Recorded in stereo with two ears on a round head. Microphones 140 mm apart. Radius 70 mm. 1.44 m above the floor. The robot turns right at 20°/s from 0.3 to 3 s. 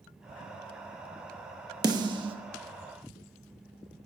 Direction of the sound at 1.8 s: 25° right (ahead or behind).